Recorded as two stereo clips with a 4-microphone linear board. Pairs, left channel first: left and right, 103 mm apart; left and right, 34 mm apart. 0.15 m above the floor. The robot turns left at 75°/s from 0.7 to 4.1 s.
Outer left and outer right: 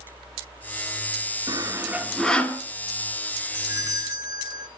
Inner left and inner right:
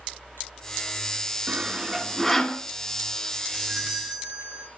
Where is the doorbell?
45° right, 1.7 m; by 4.7 s 90° right, 1.7 m.